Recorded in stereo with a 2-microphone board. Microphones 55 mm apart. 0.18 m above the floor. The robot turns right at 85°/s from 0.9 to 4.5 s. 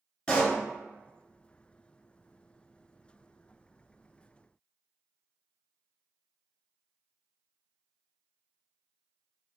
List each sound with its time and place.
0.3 s a pop: 20° left (ahead or behind), 0.9 m